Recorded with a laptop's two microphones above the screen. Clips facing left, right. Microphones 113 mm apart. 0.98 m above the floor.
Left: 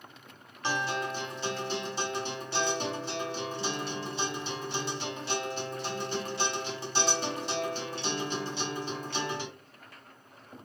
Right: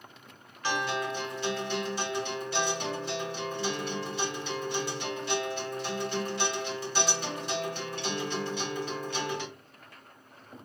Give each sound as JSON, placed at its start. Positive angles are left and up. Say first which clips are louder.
{"t": 0.6, "sound": "a guitar", "louder": "right 1 dB", "side_deg": 25, "distance_m": 2.0}